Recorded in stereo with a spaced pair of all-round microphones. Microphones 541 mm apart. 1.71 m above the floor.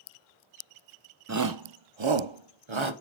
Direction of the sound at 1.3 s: 30° right (ahead or behind).